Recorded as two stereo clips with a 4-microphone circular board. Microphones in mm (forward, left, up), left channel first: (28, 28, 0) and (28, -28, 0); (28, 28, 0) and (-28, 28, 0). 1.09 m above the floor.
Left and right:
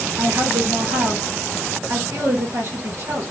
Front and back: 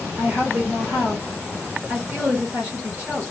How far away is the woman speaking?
About 2.5 m.